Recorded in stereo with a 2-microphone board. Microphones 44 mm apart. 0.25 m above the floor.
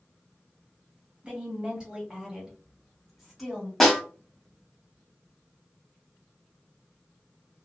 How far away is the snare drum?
About 1.1 m.